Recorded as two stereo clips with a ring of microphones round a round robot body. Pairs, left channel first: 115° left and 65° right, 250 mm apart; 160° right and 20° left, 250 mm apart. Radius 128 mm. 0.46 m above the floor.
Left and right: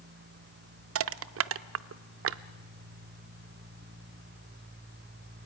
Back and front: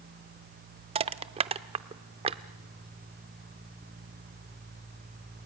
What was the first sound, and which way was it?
Crushing, 45° right.